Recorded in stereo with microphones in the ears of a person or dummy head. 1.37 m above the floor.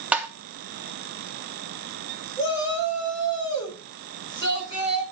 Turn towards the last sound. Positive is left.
turn(degrees=20)  # may be behind; listen again after turning